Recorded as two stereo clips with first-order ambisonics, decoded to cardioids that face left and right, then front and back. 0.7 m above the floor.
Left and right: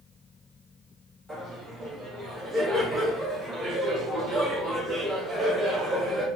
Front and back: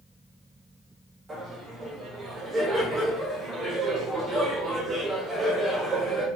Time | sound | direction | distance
1.3 | laughter | 140° right | 0.9 m